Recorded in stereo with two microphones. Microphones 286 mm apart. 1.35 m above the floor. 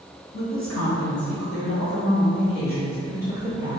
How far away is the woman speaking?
About 1.4 m.